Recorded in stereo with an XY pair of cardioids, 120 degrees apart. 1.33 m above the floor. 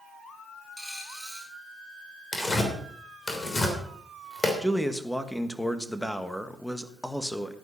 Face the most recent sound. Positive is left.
turn(degrees=5)